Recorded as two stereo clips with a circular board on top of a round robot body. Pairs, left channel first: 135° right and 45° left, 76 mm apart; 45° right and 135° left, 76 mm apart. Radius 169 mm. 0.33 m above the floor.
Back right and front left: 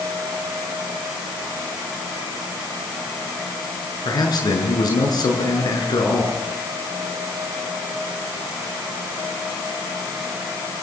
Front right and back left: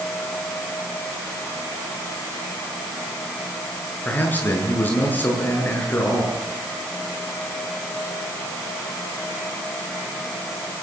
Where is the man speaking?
110° right, 8.5 m.